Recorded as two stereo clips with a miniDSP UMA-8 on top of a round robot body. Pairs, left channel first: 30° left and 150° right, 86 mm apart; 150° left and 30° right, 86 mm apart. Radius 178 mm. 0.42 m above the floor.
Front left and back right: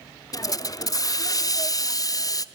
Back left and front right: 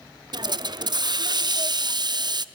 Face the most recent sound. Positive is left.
turn(degrees=-10)